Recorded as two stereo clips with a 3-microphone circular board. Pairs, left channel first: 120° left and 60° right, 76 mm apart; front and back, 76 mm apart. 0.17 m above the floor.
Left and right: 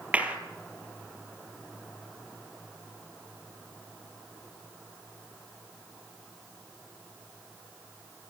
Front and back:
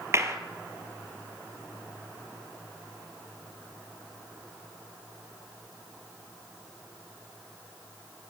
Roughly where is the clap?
Behind right.